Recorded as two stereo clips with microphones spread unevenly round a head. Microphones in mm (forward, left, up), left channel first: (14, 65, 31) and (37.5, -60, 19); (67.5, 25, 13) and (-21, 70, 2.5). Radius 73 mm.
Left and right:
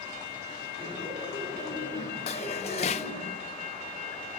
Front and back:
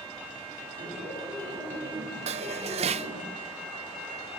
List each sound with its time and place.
0.8 s laughter: 160° left, 10 m; by 3.3 s 155° left, 7 m
2.3 s dishes clattering: 145° left, 0.5 m